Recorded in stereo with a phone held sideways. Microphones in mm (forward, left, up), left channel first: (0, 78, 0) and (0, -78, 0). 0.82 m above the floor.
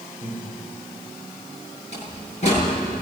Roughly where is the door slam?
Left.